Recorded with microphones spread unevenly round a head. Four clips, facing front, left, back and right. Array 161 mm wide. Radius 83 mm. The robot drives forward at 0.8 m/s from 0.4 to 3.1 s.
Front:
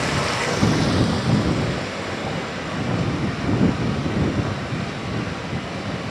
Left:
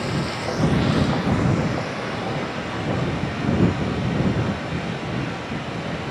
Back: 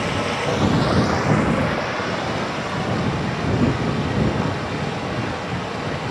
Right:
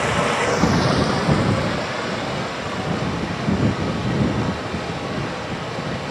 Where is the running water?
90° right, 0.8 m; by 6.1 s 160° right, 2.5 m.